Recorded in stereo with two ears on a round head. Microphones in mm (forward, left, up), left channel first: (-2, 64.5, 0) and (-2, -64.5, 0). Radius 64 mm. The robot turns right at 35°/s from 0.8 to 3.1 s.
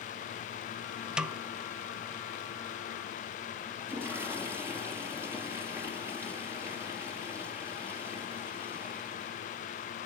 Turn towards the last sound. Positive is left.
turn(degrees=-15)  # may be behind; listen again after turning